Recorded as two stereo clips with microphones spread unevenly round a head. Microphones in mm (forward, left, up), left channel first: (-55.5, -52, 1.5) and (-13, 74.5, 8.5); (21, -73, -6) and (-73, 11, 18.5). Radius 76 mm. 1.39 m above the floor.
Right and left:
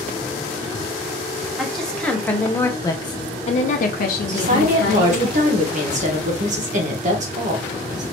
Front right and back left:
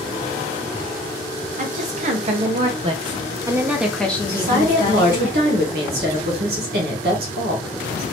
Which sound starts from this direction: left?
A woman speaking, at 4.3 s.